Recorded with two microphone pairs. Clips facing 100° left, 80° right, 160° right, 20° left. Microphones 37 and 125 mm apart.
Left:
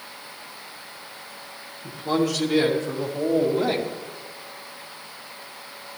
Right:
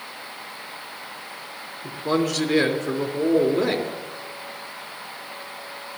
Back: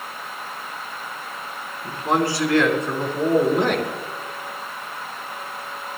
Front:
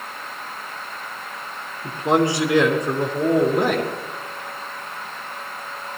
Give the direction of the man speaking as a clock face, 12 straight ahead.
1 o'clock.